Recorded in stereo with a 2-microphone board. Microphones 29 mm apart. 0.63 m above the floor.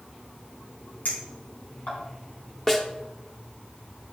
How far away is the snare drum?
About 0.9 m.